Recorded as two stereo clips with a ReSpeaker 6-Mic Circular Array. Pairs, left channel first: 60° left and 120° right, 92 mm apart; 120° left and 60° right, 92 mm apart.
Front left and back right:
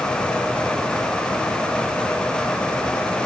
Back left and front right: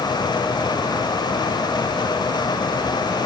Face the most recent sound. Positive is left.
No sound to turn to.